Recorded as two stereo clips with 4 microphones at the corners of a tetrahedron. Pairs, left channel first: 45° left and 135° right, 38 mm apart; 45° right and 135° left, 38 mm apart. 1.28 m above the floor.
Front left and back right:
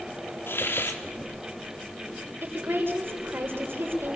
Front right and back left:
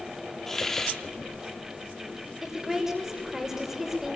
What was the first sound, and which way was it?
A hiss, 35° left.